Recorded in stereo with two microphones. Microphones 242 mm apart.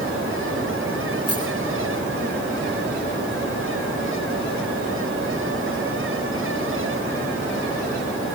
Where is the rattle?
75° left (ahead or behind), 7.5 m.